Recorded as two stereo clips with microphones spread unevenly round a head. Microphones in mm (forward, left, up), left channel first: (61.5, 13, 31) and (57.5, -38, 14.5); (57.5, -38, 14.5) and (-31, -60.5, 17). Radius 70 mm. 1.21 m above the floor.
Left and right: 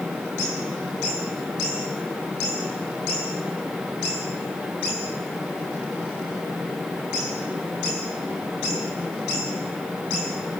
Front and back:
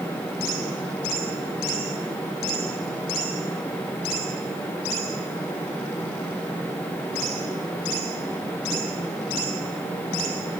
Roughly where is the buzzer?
I don't hear a buzzer.